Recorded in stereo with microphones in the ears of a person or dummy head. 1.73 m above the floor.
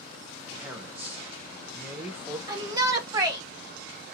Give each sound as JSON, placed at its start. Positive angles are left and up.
{"t": 0.6, "sound": "a man speaking", "side_deg": -10, "distance_m": 1.0}
{"t": 2.5, "sound": "a shout", "side_deg": -15, "distance_m": 1.0}